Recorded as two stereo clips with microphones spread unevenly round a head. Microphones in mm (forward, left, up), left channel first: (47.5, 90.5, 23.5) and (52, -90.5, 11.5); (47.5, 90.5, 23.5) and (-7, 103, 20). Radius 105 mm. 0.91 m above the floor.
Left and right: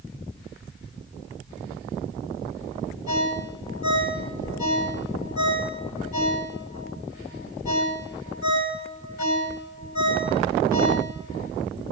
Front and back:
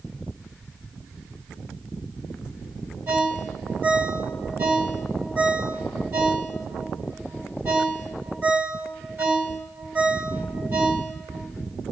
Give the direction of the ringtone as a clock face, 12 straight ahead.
8 o'clock.